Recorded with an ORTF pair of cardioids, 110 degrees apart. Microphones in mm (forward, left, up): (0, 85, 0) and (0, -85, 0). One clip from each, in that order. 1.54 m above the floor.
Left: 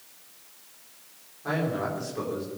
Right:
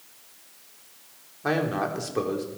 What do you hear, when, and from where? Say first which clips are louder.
1.4 s a man speaking: right 3 dB; 60° right, 4.5 m